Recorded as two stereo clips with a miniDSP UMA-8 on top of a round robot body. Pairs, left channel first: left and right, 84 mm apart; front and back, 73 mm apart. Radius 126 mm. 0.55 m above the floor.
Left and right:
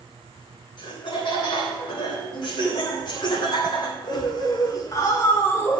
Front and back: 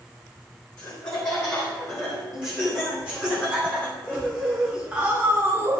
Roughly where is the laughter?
Ahead left.